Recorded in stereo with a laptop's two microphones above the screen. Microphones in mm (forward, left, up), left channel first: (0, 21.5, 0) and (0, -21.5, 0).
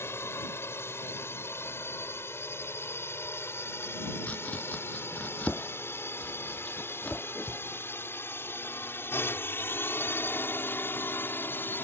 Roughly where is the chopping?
Left.